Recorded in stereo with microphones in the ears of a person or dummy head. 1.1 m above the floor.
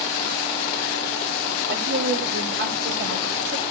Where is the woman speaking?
75° right (ahead or behind), 3 m; by 3.6 s 60° right (ahead or behind), 4.5 m.